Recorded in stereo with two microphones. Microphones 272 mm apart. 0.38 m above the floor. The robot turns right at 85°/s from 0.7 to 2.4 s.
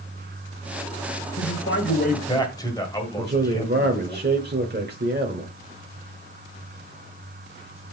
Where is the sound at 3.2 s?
35° right (ahead or behind), 1.0 m.